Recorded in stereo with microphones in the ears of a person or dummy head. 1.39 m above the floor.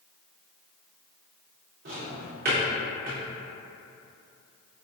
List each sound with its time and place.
1.9 s a drawer: 40° right (ahead or behind), 0.7 m